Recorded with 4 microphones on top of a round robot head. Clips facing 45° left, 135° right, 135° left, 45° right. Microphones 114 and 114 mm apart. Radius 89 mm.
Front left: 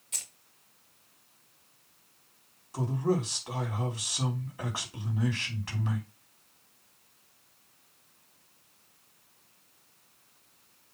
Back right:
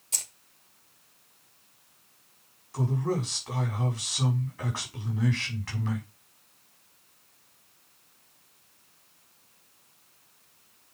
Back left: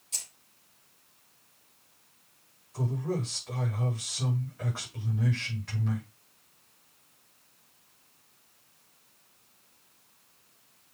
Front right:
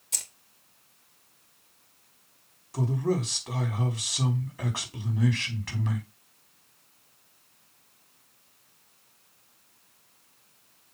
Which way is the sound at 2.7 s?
30° right.